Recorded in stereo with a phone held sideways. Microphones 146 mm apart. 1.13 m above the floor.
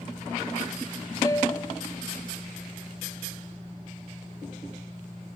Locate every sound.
1.2 s a piano: 25° left (ahead or behind)